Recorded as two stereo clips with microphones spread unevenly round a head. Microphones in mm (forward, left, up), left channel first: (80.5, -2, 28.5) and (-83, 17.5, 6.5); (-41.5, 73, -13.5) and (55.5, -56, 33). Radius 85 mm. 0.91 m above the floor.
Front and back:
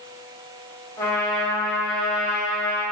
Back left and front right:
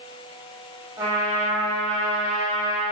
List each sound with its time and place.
1.0 s a trumpet: 45° right, 0.8 m